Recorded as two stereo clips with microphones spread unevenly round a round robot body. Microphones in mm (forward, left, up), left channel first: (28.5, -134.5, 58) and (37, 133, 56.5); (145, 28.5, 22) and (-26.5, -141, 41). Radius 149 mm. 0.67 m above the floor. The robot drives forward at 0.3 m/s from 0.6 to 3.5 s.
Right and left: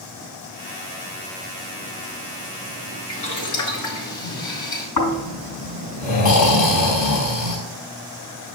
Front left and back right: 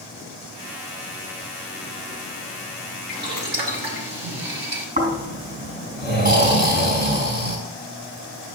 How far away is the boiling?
About 4.5 m.